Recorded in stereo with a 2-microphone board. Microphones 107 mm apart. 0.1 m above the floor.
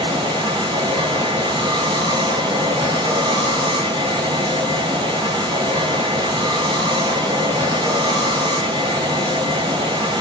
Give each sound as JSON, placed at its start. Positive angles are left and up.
{"t": 0.0, "sound": "running water", "side_deg": -45, "distance_m": 1.3}